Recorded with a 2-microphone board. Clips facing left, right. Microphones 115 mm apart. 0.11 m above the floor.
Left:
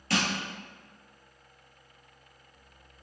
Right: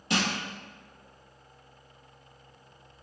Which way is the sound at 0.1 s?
20° right (ahead or behind).